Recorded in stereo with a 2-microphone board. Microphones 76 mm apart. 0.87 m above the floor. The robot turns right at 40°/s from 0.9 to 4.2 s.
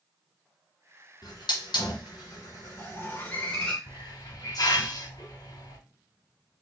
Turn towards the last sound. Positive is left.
turn(degrees=55)  # may be behind; listen again after turning